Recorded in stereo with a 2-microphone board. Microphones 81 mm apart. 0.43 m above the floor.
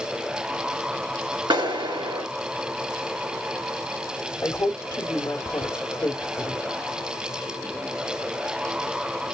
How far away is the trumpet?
I don't hear a trumpet.